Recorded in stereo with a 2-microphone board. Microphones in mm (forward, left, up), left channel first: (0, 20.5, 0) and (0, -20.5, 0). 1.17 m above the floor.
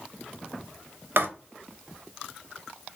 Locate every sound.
1.2 s writing: 60° right (ahead or behind), 0.5 m